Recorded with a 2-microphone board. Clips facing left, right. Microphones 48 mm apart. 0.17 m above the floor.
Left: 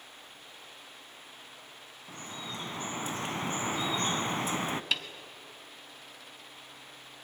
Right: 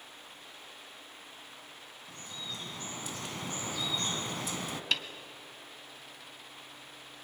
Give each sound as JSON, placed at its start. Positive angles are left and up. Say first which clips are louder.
{"t": 2.1, "sound": "dripping", "louder": "left 3 dB", "side_deg": 30, "distance_m": 0.9}
{"t": 4.9, "sound": "a snare drum", "louder": "right 3 dB", "side_deg": 5, "distance_m": 1.3}